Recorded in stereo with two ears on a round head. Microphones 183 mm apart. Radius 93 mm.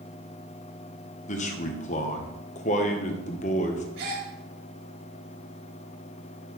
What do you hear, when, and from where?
1.3 s a man speaking: 35° left (ahead or behind), 1.1 m
4.0 s a gasp: 55° right (ahead or behind), 3.5 m